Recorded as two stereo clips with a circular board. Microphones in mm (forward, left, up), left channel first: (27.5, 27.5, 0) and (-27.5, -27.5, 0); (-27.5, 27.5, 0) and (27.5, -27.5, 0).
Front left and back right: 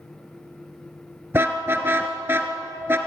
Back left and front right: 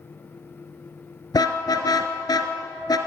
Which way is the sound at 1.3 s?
165° left.